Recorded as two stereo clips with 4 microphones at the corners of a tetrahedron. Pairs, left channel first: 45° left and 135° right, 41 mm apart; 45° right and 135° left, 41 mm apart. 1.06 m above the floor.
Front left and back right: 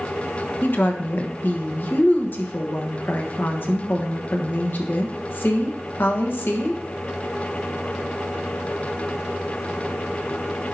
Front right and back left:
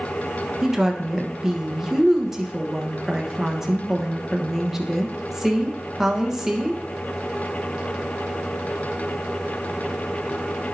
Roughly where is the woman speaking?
Ahead left.